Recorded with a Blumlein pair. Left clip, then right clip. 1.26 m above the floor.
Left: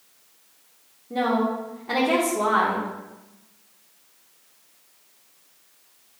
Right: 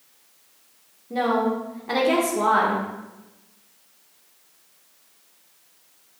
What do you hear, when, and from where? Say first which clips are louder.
1.1 s a woman speaking: right 1 dB; 5° right, 1.2 m